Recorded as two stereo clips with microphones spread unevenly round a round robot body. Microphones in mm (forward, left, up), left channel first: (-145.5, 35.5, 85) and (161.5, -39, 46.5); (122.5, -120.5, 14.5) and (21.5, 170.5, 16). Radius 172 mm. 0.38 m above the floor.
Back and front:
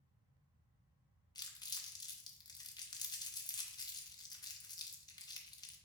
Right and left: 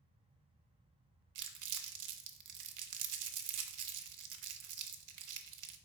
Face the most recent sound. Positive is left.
turn(degrees=85)